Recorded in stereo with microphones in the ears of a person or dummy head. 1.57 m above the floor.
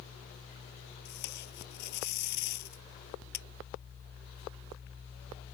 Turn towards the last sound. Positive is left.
turn(degrees=60)  # may be behind; listen again after turning